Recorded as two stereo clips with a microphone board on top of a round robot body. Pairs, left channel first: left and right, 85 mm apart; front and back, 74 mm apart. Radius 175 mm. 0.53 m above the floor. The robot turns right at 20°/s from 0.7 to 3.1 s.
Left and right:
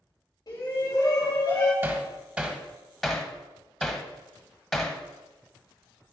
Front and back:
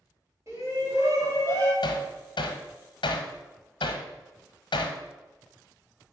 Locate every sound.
0.5 s a shout: 130° left, 4 m; by 1.7 s 150° left, 4 m
1.8 s hammering: 25° right, 0.8 m; by 5.0 s straight ahead, 0.8 m